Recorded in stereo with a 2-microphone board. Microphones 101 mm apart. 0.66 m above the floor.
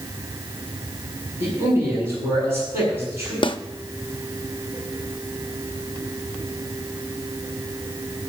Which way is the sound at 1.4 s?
25° right (ahead or behind).